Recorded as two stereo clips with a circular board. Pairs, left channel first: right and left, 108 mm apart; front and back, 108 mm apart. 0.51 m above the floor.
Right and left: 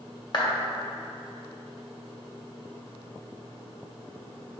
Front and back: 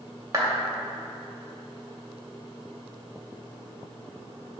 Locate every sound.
0.3 s a clap: 125° right, 1.7 m